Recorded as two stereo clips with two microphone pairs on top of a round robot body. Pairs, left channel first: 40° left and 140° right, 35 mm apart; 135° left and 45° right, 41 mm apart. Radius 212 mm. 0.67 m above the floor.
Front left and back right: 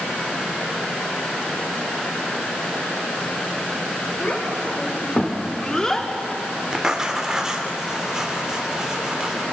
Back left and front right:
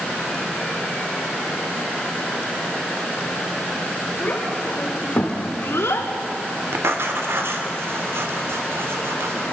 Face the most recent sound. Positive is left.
turn(degrees=-65)